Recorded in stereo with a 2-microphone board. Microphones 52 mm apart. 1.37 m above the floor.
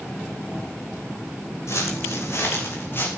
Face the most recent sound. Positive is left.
turn(degrees=45)  # may be behind; listen again after turning